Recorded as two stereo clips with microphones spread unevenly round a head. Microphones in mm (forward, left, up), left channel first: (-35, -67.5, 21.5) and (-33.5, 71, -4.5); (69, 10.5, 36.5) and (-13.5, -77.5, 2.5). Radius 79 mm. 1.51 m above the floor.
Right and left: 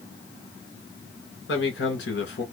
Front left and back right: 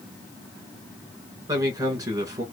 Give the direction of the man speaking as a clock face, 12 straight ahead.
2 o'clock.